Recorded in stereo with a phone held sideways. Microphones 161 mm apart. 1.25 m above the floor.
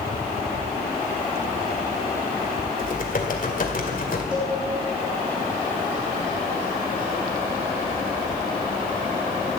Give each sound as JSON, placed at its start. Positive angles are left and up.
{"t": 2.8, "sound": "typing on a keyboard", "side_deg": 60, "distance_m": 2.0}
{"t": 4.3, "sound": "a cowbell", "side_deg": -5, "distance_m": 4.0}